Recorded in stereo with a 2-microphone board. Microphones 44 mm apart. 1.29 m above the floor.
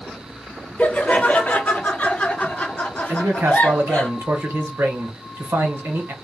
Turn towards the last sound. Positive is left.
turn(degrees=-60)  # may be behind; listen again after turning